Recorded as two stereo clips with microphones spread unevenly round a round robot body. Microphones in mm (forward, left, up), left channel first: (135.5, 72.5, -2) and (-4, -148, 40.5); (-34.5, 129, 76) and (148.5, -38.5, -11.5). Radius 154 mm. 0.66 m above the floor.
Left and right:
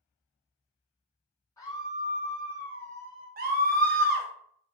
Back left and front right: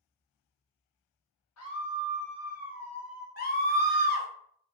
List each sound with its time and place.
1.6 s a scream: 125° left, 0.8 m; by 3.3 s 60° left, 1.2 m
3.4 s a scream: 165° right, 0.9 m